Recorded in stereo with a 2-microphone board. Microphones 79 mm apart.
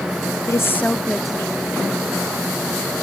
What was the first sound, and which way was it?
A woman speaking, 40° left (ahead or behind).